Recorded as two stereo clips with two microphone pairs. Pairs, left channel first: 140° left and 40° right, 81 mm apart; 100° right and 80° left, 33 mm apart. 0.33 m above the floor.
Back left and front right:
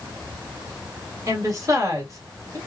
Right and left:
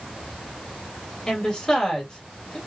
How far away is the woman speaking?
About 1.7 m.